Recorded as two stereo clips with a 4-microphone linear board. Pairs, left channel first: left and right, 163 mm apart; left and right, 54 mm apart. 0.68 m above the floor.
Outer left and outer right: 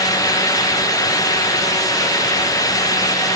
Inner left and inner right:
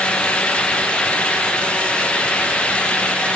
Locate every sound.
Only background noise.